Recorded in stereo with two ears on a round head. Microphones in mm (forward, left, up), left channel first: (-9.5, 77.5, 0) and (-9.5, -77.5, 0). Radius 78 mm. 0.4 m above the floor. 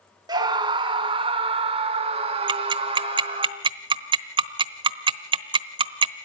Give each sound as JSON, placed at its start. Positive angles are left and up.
{"t": 0.3, "sound": "a scream", "side_deg": -25, "distance_m": 1.6}
{"t": 2.5, "sound": "ticking", "side_deg": -30, "distance_m": 0.9}